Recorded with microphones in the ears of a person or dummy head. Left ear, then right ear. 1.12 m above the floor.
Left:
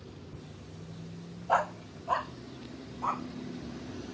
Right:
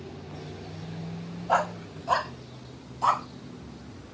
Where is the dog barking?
5° right (ahead or behind); by 3.3 s 45° right (ahead or behind).